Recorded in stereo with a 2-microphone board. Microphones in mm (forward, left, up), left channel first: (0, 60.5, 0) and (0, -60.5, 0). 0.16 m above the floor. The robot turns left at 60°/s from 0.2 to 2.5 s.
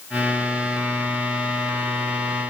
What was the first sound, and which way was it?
Only background noise.